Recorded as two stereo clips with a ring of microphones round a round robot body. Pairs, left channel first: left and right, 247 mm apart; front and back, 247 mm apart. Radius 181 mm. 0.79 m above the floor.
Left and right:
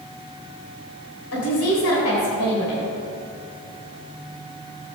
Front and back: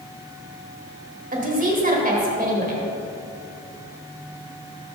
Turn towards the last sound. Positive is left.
turn(degrees=125)